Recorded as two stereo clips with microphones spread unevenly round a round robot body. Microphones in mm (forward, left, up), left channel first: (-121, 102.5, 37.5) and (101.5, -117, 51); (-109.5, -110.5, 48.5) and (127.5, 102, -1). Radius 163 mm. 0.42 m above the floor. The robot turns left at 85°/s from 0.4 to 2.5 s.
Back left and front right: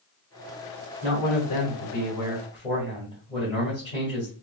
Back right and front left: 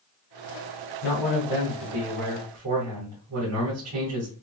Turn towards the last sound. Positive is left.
turn(degrees=65)